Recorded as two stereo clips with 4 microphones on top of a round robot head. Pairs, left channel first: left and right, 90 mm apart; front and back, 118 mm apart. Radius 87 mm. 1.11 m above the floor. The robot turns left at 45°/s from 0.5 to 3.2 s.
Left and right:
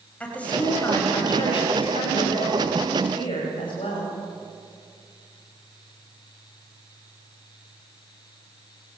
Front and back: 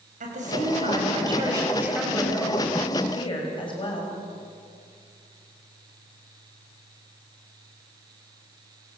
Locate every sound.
0.2 s a woman speaking: 165° left, 8 m; by 4.1 s 45° left, 8 m